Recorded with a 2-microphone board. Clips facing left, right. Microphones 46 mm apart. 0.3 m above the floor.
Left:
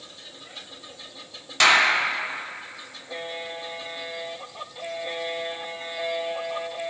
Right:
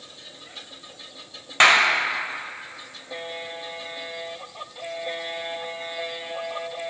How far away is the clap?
About 0.8 m.